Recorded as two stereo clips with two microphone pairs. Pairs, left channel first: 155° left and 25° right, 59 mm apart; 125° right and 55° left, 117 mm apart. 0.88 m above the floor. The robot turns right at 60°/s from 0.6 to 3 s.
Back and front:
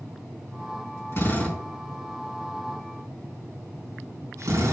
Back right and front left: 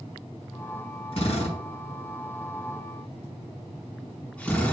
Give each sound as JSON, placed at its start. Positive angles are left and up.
{"t": 1.1, "sound": "a drill", "azimuth_deg": -160, "distance_m": 4.5}